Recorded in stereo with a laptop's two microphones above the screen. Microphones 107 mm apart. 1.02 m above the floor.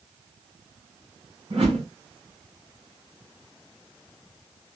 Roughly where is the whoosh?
Right.